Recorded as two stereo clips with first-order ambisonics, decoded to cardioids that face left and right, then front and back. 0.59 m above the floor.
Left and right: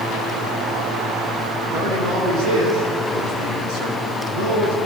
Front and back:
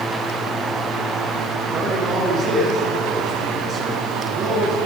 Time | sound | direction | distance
1.7 | a man speaking | 120° right | 9 m